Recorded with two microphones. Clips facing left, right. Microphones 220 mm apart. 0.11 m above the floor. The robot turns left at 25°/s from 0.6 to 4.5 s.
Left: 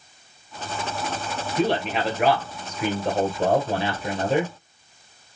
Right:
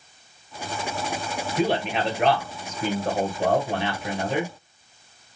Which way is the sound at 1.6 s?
170° right.